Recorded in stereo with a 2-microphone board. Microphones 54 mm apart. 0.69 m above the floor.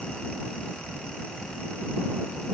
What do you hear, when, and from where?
Only background noise.